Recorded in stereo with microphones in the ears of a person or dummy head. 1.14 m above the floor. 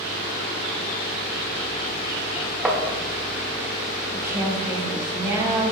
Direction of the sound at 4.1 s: 20° right (ahead or behind).